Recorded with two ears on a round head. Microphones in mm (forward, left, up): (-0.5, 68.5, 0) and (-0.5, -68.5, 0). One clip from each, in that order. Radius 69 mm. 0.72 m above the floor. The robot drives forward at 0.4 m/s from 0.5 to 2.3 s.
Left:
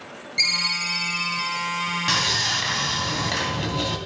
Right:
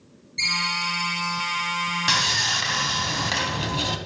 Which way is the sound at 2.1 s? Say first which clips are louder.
Right 1 dB; 25° right (ahead or behind).